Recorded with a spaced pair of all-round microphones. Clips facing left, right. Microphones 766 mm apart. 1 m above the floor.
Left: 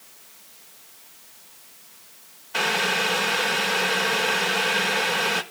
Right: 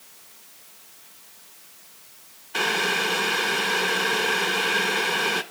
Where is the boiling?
20° left (ahead or behind), 1.0 m.